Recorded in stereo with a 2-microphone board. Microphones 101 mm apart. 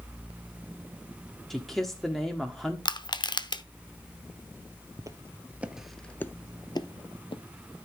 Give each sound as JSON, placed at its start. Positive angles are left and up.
{"t": 1.5, "sound": "a man speaking", "side_deg": 0, "distance_m": 1.3}
{"t": 2.9, "sound": "crushing", "side_deg": 45, "distance_m": 0.7}
{"t": 5.0, "sound": "footsteps", "side_deg": -35, "distance_m": 1.0}